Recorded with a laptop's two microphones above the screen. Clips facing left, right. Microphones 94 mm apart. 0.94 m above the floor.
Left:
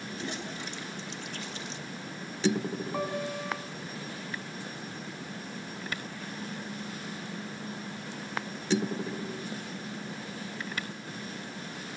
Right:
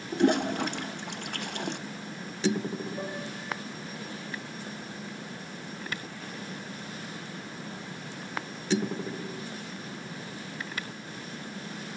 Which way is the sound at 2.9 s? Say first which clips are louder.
Left 4 dB; 85° left.